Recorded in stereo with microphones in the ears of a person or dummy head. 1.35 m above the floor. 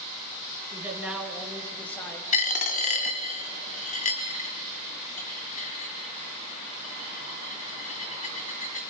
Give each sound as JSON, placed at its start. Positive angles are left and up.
{"t": 0.7, "sound": "a man speaking", "side_deg": -10, "distance_m": 2.5}
{"t": 2.3, "sound": "a dropped coin", "side_deg": 40, "distance_m": 1.8}